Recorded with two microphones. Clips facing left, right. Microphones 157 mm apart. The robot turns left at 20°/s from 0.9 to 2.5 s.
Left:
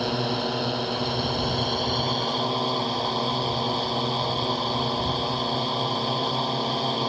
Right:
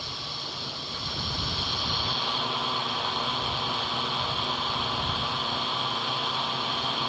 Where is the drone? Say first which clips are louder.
Left 15 dB; 70° left; by 7.1 s 35° left.